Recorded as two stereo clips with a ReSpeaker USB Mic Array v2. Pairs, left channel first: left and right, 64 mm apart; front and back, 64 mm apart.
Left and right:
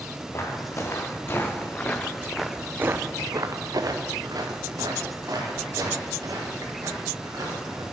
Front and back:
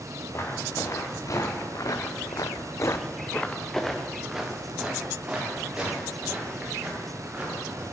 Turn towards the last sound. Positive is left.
turn(degrees=-110)